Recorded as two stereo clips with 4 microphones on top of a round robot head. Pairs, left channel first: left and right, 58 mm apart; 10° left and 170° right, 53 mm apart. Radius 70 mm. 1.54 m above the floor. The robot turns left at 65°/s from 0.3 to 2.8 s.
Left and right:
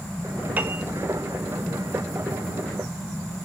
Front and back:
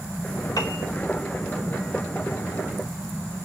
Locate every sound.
0.6 s a piano: 35° right, 0.9 m; by 0.8 s 55° right, 0.9 m